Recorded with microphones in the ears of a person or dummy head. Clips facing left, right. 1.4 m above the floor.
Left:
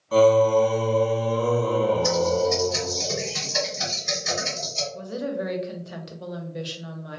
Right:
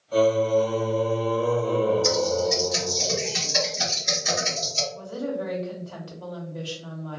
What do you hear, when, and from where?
0.1 s singing: 80° left, 0.9 m
2.0 s typing on a keyboard: 15° right (ahead or behind), 1.5 m
4.9 s a woman speaking: 30° left (ahead or behind), 0.6 m